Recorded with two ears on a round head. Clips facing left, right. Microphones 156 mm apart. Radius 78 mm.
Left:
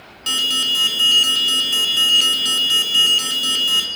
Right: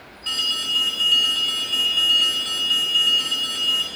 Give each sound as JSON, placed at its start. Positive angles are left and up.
{"t": 0.3, "sound": "an alarm", "side_deg": 55, "distance_m": 0.8}